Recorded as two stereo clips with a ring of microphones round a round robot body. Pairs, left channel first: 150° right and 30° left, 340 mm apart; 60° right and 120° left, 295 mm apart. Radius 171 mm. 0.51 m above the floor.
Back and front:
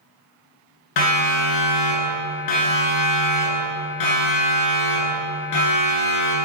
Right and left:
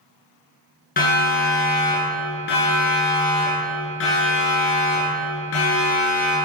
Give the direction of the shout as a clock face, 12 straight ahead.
I don't hear a shout.